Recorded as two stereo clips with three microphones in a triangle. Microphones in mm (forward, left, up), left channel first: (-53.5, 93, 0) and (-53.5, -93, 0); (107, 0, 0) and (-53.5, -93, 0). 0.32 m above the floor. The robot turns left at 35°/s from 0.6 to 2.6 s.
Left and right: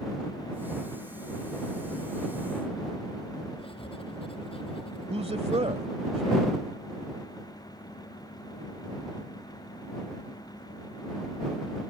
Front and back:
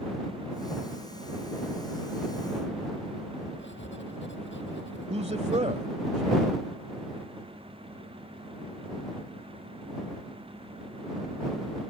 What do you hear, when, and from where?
3.6 s writing: 30° left
5.1 s a man speaking: 120° right